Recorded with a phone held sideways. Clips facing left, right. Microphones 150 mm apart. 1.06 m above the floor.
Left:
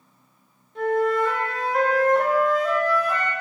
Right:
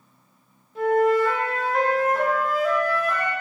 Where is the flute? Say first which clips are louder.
Right 2 dB; centre (ahead or behind), 0.7 m.